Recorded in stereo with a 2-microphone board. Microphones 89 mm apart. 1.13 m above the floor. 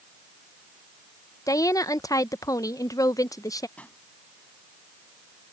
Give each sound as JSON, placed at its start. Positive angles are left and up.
{"t": 1.5, "sound": "a woman speaking", "side_deg": 35}
{"t": 3.8, "sound": "a pop", "side_deg": 15}